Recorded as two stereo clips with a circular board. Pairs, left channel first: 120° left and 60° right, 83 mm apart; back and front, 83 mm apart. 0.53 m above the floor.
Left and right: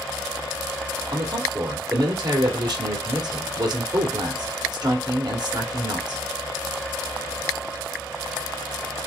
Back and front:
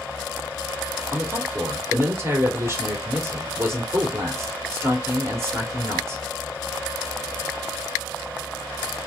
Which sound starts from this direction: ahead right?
A man speaking, at 1.1 s.